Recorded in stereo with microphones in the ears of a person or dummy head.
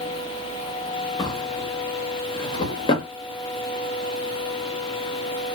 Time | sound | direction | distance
1.2 | a drawer | 25° left (ahead or behind) | 0.8 m